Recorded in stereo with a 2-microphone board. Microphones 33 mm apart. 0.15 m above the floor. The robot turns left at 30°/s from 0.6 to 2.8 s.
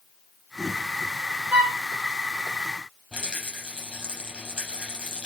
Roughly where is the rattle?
Right.